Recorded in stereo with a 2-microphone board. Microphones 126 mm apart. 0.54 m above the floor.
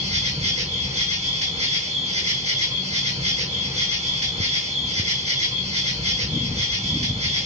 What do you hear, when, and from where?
0.0 s an insect: 65° right (ahead or behind), 2 m